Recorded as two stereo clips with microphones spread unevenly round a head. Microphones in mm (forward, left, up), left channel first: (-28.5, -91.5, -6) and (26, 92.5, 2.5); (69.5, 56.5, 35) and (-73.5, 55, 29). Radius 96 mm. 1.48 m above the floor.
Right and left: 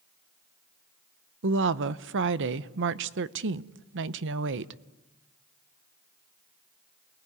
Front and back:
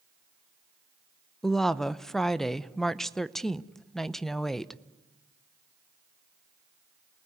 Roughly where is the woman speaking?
Left.